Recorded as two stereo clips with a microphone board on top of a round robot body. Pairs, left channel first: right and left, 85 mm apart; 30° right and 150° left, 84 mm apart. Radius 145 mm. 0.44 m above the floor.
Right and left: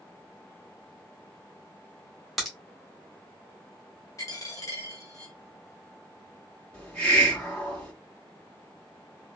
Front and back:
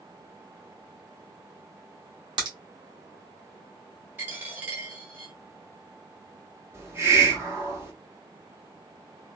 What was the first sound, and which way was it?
A crack, straight behind.